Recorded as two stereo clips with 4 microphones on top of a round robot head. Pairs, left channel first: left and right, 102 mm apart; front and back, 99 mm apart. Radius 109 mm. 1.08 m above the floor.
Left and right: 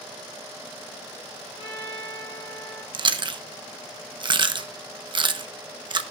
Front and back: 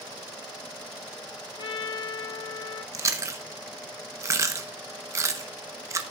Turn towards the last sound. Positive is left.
turn(degrees=-125)